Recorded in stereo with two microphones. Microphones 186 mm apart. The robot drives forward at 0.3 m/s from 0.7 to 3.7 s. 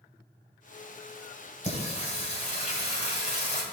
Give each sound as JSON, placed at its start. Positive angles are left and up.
{"t": 1.6, "sound": "singing", "side_deg": 40, "distance_m": 2.5}